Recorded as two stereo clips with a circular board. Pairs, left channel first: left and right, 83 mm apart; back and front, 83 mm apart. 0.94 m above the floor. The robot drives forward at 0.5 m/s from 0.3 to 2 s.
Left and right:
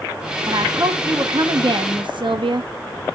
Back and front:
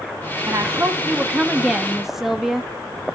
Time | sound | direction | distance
0.5 | a woman speaking | 50° right | 1.4 m